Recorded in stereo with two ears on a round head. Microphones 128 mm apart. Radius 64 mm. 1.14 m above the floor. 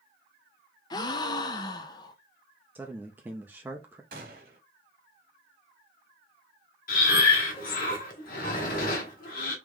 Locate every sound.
0.9 s a gasp: 30° left (ahead or behind), 0.5 m
2.8 s a man speaking: 15° right (ahead or behind), 0.6 m
4.1 s a gunshot: 65° right (ahead or behind), 1.8 m
6.9 s breathing: 65° left (ahead or behind), 1.5 m